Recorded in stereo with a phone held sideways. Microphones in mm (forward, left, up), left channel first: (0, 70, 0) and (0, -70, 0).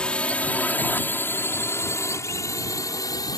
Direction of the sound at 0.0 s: 5° left (ahead or behind).